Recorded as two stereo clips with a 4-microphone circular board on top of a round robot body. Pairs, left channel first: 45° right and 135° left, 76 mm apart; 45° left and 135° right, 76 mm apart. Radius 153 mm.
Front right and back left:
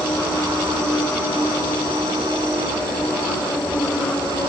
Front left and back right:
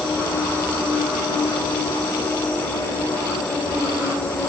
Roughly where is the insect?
Ahead left.